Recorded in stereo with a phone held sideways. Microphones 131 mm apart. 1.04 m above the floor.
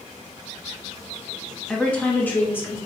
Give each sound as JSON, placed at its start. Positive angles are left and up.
{"t": 1.7, "sound": "a woman speaking", "side_deg": 5, "distance_m": 1.9}